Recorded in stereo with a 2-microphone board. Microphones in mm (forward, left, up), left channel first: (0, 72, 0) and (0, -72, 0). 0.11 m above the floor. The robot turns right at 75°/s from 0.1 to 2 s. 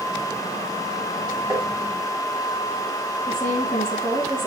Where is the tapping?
20° right (ahead or behind), 4 m; by 1.7 s 35° right (ahead or behind), 4 m.